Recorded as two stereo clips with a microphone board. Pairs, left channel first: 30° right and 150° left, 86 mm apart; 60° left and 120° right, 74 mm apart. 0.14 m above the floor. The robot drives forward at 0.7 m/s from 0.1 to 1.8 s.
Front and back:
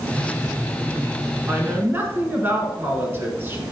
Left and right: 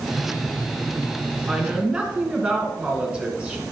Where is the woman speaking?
Straight behind, 1.5 m.